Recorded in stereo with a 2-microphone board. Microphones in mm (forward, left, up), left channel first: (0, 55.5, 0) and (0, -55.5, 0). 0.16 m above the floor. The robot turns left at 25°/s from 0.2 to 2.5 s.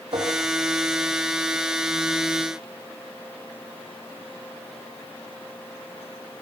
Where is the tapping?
50° right (ahead or behind), 6.5 m; by 0.3 s 45° right (ahead or behind), 6.5 m.